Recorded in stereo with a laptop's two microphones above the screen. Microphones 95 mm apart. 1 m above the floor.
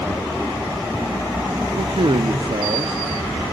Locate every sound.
1.8 s a man speaking: 60° right (ahead or behind), 1.4 m